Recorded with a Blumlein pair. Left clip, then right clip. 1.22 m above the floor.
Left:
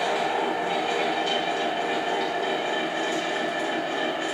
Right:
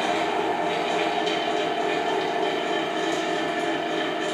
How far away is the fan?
About 1.1 m.